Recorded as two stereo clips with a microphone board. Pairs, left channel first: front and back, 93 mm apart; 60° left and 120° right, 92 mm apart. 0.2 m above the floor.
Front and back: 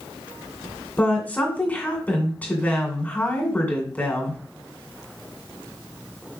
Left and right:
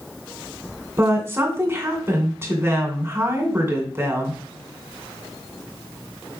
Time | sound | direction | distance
1.0 | a woman speaking | 70° right | 2 m